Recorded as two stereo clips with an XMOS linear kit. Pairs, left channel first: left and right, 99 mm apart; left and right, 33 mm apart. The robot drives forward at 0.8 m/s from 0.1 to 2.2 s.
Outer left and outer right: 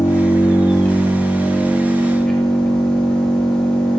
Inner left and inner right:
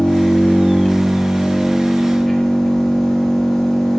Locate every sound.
0.0 s an engine running: 30° left (ahead or behind), 1.7 m; by 4.0 s 15° left (ahead or behind), 3 m